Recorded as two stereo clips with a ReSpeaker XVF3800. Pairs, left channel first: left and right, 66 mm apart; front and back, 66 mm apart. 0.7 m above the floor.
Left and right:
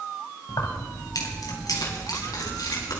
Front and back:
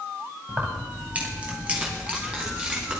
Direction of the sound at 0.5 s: 115° left.